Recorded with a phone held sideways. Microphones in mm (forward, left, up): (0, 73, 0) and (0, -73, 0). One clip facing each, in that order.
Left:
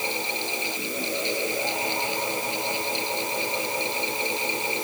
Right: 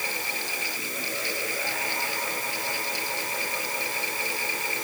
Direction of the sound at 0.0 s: 20° left (ahead or behind).